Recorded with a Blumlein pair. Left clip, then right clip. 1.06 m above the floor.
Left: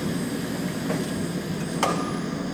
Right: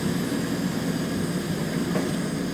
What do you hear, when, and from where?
0.0 s an engine running: 5° right